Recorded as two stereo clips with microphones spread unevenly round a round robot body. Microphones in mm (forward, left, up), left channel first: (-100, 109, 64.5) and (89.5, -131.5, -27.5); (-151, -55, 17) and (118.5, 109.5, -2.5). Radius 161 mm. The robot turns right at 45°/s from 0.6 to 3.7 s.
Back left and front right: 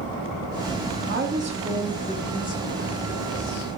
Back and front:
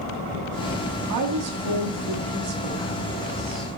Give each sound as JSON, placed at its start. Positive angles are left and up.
{"t": 1.1, "sound": "a woman speaking", "azimuth_deg": -5, "distance_m": 1.2}